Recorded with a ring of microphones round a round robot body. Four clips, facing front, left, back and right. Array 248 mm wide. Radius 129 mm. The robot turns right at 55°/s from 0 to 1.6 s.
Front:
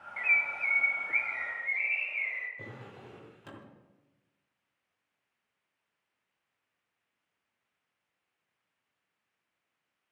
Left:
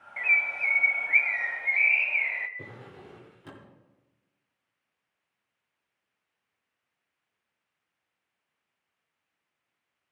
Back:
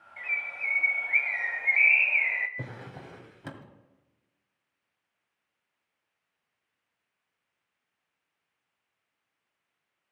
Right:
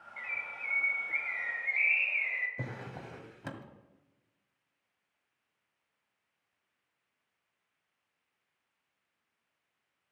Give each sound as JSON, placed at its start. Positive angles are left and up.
{"t": 0.2, "sound": "a bird", "azimuth_deg": 65, "distance_m": 0.8}
{"t": 2.6, "sound": "a drawer", "azimuth_deg": -130, "distance_m": 1.8}